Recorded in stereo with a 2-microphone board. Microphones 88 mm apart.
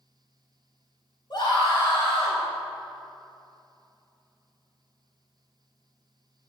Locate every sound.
1.3 s a scream: 50° left (ahead or behind), 4 m